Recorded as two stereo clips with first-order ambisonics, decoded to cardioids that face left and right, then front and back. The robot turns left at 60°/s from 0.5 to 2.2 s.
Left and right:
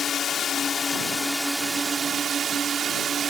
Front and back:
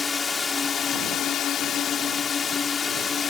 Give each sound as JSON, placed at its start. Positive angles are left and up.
{"t": 0.0, "sound": "a drone", "azimuth_deg": 55}